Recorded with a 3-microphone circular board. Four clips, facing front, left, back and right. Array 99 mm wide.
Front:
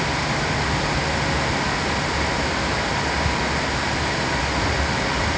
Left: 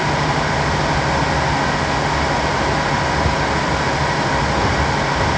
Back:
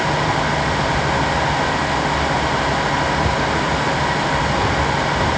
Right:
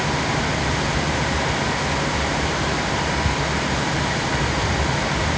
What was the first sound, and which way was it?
Only background noise.